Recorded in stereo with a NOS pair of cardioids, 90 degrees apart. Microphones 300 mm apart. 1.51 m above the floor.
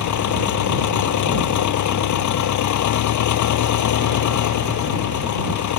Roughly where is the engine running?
Left.